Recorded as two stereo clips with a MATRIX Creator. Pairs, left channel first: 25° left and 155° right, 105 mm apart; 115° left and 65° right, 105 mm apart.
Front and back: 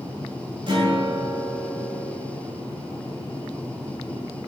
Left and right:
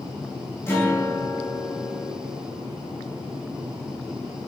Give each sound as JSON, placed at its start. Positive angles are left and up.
{"t": 0.7, "sound": "a guitar", "azimuth_deg": 175, "distance_m": 3.0}